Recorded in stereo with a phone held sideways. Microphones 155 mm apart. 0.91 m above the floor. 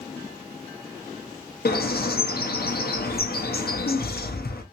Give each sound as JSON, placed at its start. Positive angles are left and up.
{"t": 1.6, "sound": "a bird", "side_deg": 80, "distance_m": 0.6}